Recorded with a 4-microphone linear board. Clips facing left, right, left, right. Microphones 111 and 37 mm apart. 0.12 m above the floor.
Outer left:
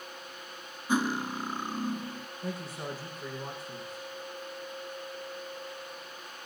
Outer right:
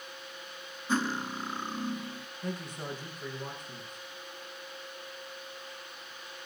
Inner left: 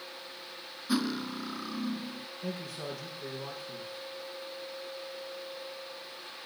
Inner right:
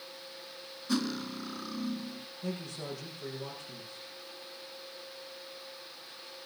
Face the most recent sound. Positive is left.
turn(degrees=0)  # may be behind; listen again after turning